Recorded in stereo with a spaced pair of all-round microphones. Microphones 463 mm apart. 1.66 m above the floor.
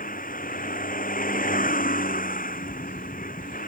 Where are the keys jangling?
I don't hear keys jangling.